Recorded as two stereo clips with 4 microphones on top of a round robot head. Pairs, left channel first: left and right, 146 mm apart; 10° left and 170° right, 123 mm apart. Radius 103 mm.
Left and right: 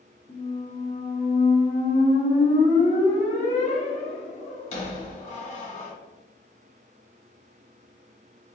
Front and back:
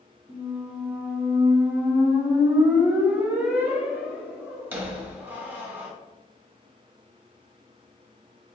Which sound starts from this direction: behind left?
A squeak, at 0.3 s.